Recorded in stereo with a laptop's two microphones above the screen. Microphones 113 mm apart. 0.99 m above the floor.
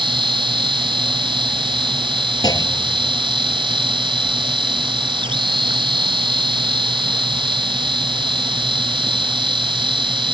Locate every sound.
0.0 s a machine running: 45° right (ahead or behind)
2.4 s a clunk: 35° left (ahead or behind)